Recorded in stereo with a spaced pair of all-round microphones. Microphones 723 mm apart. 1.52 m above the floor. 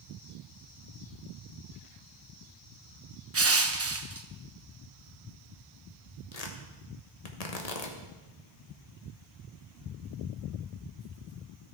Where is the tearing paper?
60° left (ahead or behind), 1.2 m.